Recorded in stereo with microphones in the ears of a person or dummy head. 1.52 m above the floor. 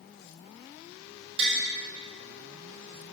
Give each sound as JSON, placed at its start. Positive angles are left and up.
{"t": 1.4, "sound": "tapping", "side_deg": -35, "distance_m": 5.0}